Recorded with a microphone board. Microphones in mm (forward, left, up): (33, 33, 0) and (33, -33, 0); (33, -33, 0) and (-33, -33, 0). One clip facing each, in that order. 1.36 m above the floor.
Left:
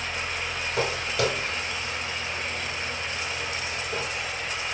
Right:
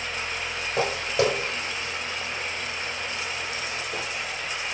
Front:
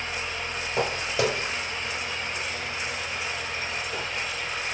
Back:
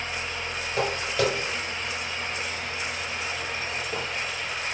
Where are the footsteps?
50° right, 1.6 m; by 4.1 s 170° left, 1.6 m.